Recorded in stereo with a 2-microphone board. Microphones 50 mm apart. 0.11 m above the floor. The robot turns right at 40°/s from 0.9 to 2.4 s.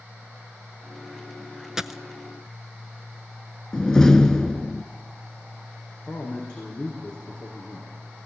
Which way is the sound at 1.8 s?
10° right (ahead or behind).